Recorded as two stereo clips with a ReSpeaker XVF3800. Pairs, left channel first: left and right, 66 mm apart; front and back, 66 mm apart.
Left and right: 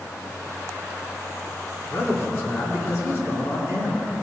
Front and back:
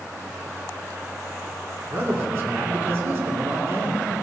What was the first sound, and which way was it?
A man speaking, 130° left.